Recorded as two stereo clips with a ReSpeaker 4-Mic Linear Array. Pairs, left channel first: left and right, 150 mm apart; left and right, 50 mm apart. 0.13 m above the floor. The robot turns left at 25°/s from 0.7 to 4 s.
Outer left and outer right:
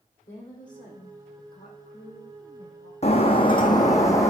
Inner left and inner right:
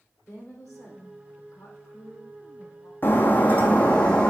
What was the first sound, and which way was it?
A woman speaking, 115° left.